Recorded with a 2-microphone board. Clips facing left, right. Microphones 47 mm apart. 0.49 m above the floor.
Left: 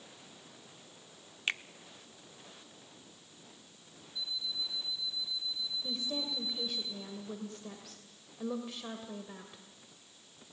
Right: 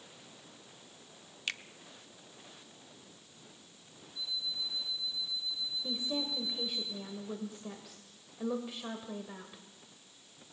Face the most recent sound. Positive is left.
turn(degrees=-10)  # may be behind; listen again after turning